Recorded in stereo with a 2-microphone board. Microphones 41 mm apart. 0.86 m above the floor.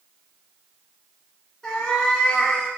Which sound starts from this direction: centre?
A cat meowing, at 1.6 s.